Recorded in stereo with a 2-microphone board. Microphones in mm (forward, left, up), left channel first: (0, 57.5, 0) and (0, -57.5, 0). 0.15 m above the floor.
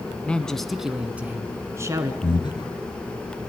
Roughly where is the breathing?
Left.